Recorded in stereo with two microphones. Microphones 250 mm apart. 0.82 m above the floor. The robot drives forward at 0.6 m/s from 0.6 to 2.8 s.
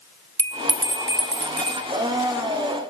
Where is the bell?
70° right (ahead or behind), 0.6 m; by 1.8 s 30° right (ahead or behind), 1.0 m.